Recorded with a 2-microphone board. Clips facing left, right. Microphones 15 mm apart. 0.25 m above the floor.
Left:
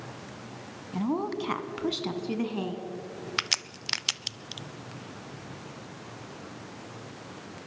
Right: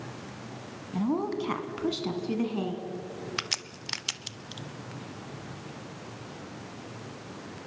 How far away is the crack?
About 0.6 m.